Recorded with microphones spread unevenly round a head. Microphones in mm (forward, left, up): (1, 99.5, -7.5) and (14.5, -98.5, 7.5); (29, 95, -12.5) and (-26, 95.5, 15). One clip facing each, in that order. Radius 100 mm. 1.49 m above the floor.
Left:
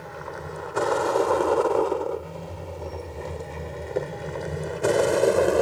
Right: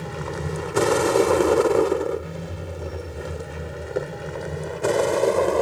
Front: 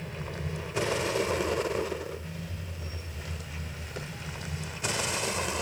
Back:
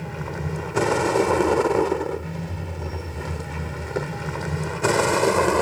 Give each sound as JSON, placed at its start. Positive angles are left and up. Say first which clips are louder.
{"t": 0.0, "sound": "a vehicle", "louder": "right 6 dB, back 7 dB", "azimuth_deg": -130}